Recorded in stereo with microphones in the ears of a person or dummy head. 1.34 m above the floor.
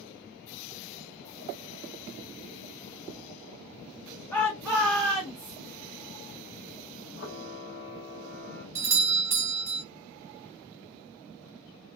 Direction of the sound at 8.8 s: 15° right (ahead or behind).